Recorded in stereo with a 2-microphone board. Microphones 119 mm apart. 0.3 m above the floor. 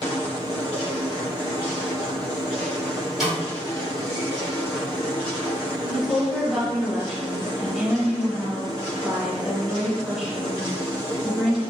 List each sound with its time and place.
3.2 s a snare drum: centre (ahead or behind), 1.9 m
5.9 s a woman speaking: 5° right (ahead or behind), 1.0 m